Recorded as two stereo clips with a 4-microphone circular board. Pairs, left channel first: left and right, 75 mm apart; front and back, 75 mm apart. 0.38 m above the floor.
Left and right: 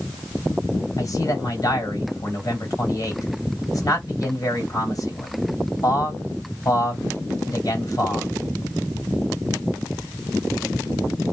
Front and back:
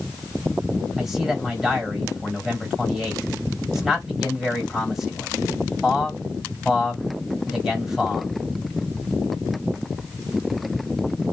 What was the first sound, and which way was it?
A man speaking, 100° left.